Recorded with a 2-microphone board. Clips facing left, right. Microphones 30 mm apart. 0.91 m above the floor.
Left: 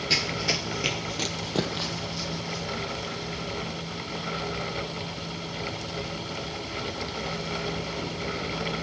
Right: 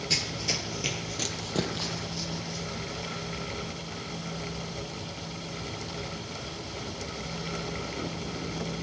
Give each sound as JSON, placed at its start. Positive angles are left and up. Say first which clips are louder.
{"t": 0.1, "sound": "running footsteps", "louder": "left 4 dB", "side_deg": 30, "distance_m": 1.0}